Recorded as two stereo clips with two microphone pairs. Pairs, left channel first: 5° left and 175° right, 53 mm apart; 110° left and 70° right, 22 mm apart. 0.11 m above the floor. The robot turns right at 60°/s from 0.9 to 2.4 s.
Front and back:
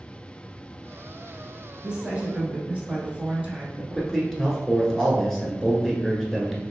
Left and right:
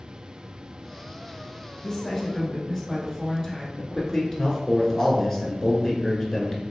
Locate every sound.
1.8 s a woman speaking: 135° left, 1.1 m; by 3.7 s 170° left, 1.1 m
3.8 s a man speaking: 90° left, 1.1 m